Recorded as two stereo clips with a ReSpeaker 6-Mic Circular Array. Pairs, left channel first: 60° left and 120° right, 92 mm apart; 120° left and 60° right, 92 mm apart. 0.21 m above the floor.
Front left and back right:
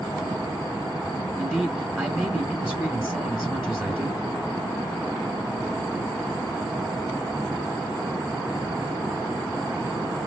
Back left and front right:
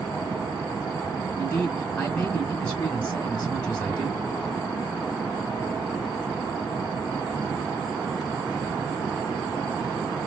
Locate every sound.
1.4 s a man speaking: straight behind, 1.5 m